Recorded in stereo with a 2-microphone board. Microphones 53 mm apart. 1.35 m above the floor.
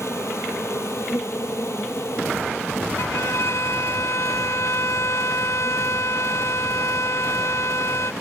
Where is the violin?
65° left (ahead or behind).